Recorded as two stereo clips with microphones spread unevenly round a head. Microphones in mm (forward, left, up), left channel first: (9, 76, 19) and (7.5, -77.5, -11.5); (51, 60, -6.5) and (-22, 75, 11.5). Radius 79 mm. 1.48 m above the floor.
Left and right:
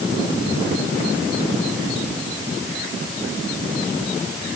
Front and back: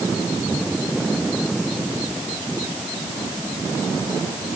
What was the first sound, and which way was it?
Only background noise.